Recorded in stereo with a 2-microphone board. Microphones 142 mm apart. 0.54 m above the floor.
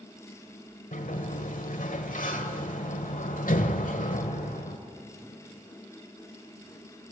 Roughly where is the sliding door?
Left.